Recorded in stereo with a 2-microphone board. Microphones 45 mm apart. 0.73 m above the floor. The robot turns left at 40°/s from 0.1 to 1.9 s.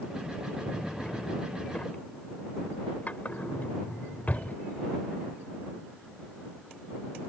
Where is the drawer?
20° left (ahead or behind); by 4.6 s 40° left (ahead or behind).